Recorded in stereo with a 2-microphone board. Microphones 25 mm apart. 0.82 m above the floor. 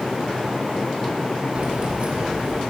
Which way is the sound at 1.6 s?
55° right (ahead or behind).